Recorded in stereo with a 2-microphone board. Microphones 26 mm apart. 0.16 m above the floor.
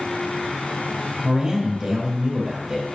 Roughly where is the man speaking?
Right.